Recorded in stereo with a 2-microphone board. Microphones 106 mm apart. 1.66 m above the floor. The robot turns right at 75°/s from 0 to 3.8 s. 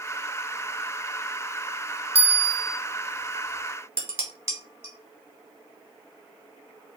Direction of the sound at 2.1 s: 105° right.